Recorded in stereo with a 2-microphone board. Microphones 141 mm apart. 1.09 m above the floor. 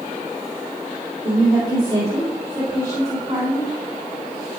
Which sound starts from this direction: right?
A woman speaking, at 1.2 s.